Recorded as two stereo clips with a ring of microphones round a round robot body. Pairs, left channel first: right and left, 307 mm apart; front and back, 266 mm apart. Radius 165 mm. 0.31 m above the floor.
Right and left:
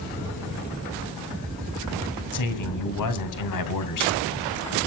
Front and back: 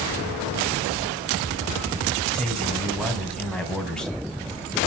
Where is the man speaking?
85° right, 2.5 m.